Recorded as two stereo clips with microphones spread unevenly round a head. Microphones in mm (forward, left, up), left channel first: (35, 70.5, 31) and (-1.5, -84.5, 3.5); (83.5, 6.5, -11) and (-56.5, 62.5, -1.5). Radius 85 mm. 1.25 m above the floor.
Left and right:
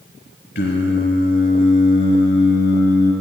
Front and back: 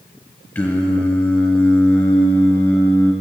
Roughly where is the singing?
Ahead left.